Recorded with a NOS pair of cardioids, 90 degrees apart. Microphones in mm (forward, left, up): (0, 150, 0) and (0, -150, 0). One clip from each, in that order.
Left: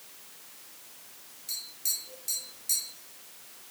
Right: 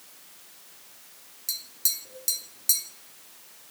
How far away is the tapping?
About 1.0 m.